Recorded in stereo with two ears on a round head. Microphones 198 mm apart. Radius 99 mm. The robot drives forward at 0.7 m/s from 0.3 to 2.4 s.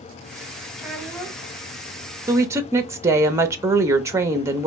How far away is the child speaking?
About 1.7 m.